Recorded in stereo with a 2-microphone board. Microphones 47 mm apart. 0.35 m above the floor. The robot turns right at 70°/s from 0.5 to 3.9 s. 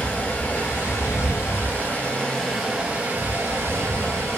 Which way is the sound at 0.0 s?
40° left.